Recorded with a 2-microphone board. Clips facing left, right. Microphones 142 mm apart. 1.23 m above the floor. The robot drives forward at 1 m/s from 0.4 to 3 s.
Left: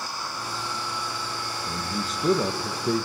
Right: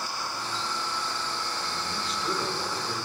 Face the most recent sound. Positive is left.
turn(degrees=75)  # may be behind; listen again after turning